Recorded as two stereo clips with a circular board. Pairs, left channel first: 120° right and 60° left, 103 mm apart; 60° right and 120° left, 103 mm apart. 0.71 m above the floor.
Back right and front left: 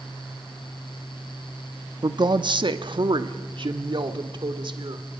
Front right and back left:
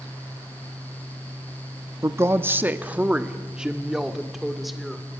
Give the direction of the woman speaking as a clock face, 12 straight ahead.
10 o'clock.